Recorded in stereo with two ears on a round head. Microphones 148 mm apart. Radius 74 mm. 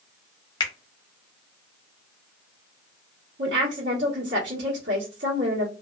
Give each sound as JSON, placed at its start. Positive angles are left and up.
{"t": 0.6, "sound": "a finger snap", "side_deg": 25, "distance_m": 0.7}
{"t": 3.4, "sound": "a woman speaking", "side_deg": -75, "distance_m": 1.1}